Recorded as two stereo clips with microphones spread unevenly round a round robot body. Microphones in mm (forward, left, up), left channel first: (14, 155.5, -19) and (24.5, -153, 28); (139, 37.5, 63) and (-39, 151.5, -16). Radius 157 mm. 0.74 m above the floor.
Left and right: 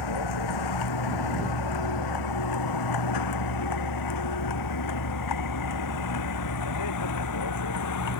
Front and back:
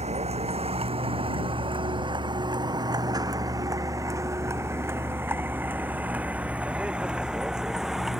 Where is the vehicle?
85° left; by 8.2 s 60° left.